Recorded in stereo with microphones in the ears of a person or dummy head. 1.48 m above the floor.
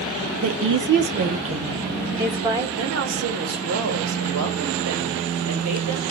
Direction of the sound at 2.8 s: 80° right.